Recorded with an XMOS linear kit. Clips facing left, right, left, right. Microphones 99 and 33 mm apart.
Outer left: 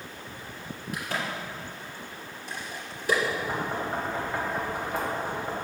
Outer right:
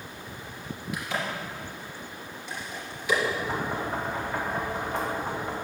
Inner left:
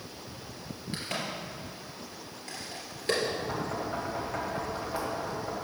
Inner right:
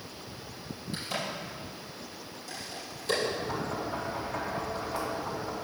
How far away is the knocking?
About 3 m.